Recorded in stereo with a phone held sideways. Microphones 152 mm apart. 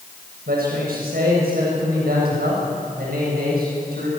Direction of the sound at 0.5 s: 80° right.